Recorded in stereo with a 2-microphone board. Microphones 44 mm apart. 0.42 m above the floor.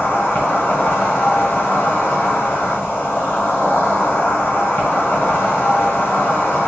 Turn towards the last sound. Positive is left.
turn(degrees=40)  # may be behind; listen again after turning